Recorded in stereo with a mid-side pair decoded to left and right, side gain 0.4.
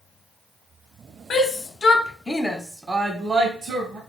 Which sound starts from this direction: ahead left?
A shout, at 1.3 s.